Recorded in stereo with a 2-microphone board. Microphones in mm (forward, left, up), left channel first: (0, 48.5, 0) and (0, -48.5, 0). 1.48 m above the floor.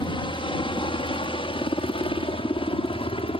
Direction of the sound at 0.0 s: 60° left (ahead or behind).